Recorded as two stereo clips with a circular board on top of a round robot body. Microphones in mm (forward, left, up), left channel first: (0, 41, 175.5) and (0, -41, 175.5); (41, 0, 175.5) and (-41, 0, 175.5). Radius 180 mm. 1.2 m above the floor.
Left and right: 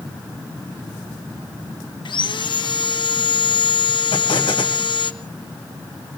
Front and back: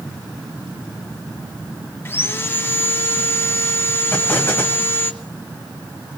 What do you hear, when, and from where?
2.0 s sawing: 65° left, 1.3 m
4.1 s an explosion: 65° left, 2 m